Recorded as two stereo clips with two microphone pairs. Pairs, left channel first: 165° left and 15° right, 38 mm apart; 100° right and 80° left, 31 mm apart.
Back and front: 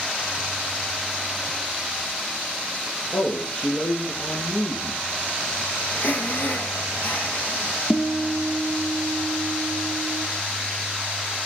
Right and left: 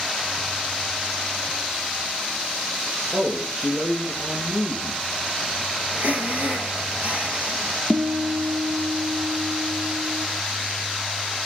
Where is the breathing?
115° left, 2.5 m.